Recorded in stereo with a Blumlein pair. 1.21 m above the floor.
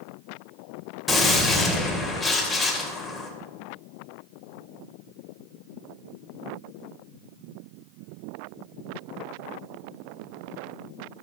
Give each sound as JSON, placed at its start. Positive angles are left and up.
{"t": 1.1, "sound": "a gunshot", "azimuth_deg": 10, "distance_m": 3.0}